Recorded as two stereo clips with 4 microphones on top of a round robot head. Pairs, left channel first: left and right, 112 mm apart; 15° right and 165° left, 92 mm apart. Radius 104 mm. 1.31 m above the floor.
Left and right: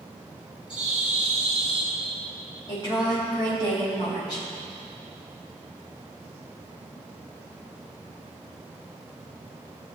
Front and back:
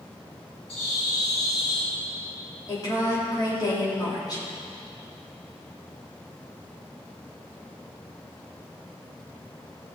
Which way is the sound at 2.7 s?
35° left.